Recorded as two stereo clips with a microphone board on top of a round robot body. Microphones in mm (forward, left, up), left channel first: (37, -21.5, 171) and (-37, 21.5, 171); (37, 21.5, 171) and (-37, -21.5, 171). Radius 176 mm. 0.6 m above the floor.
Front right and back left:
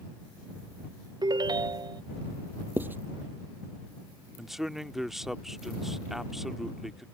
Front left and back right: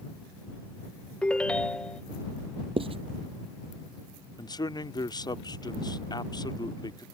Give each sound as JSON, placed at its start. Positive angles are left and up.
{"t": 1.2, "sound": "a ringtone", "azimuth_deg": 110}
{"t": 2.8, "sound": "writing", "azimuth_deg": -140}
{"t": 4.4, "sound": "a man speaking", "azimuth_deg": 65}